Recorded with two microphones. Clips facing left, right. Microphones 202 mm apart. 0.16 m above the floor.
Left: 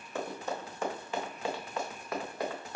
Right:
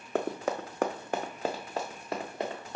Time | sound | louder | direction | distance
0.1 | running footsteps | right 6 dB | 75° right (ahead or behind) | 0.6 m